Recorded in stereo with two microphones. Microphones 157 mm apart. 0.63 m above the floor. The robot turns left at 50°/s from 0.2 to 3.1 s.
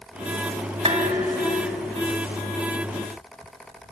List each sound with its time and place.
0.8 s dishes clattering: 140° right, 3.5 m; by 2.0 s 165° left, 3.5 m